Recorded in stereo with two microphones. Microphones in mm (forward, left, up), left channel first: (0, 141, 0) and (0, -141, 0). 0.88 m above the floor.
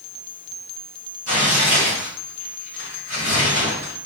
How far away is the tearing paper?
About 1.9 m.